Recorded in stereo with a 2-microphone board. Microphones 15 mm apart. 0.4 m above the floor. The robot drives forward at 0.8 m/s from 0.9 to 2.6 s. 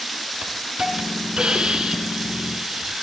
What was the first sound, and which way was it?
A hiss, 70° right (ahead or behind).